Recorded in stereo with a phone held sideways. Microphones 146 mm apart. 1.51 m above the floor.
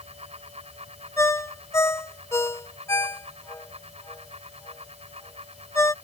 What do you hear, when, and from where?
0.0 s a fan: 45° right (ahead or behind)
1.2 s a ringtone: 20° left (ahead or behind)